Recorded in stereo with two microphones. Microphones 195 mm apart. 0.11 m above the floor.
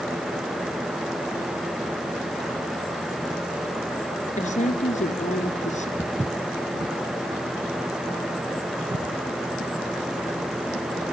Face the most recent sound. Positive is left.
turn(degrees=-90)